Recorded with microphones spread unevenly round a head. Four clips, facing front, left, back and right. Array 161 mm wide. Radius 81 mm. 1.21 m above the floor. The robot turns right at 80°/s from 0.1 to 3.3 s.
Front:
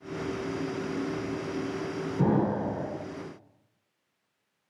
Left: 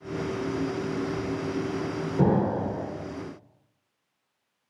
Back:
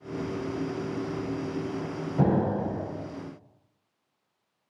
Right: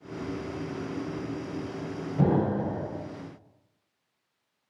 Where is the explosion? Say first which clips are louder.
Left 1 dB, back 1 dB; 175° left, 1.8 m; by 2.8 s 135° right, 1.8 m.